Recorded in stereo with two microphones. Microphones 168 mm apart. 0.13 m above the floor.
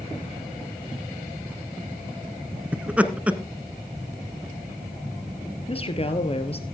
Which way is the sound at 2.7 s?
10° right (ahead or behind).